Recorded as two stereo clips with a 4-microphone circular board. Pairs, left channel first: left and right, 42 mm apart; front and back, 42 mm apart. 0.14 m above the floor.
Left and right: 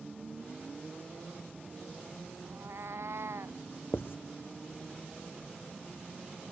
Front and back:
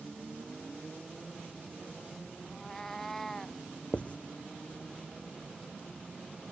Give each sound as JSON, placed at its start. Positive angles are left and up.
{"t": 2.5, "sound": "a cat meowing", "azimuth_deg": -80}
{"t": 3.9, "sound": "writing", "azimuth_deg": 60}